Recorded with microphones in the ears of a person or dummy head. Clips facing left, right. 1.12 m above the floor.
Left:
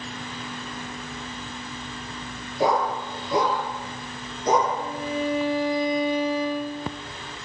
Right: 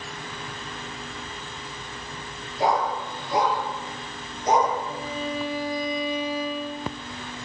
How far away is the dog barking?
About 8.5 m.